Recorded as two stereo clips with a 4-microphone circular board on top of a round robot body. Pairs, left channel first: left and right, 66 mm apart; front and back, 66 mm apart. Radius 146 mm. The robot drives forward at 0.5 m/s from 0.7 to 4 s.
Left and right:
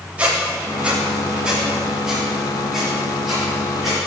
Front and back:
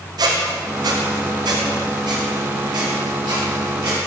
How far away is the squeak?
About 0.6 m.